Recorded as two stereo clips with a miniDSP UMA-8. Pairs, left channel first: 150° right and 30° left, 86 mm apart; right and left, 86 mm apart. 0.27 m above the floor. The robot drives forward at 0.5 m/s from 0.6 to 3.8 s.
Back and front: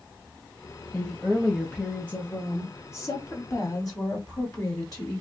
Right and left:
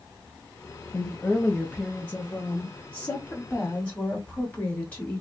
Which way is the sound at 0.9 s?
60° right.